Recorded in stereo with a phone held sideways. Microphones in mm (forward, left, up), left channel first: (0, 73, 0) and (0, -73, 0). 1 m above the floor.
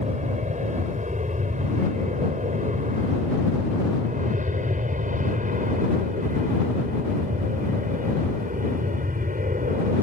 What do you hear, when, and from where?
0.0 s an aircraft: 55° right (ahead or behind); by 10.0 s 65° right (ahead or behind)